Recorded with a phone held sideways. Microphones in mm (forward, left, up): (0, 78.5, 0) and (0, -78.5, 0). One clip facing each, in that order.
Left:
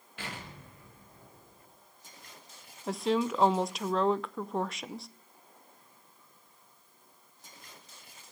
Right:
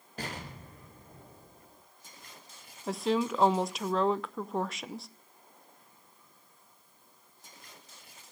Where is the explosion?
40° right (ahead or behind), 4.5 m.